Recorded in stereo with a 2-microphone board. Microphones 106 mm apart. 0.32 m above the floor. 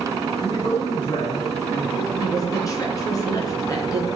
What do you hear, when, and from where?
0.4 s a man speaking: 50° left (ahead or behind), 2.5 m; by 2.0 s 25° left (ahead or behind), 3.5 m
2.1 s a woman speaking: 30° left (ahead or behind), 3.5 m